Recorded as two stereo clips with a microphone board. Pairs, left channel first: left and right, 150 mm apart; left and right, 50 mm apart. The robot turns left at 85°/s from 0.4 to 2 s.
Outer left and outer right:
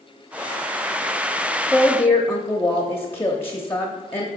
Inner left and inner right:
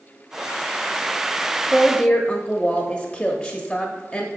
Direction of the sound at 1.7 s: 5° right (ahead or behind).